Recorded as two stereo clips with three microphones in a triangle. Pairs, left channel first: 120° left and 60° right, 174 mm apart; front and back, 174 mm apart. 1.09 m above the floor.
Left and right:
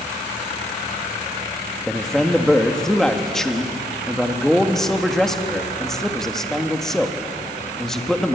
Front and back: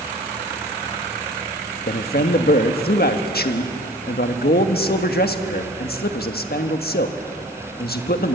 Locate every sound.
1.9 s a man speaking: 35° left, 1.5 m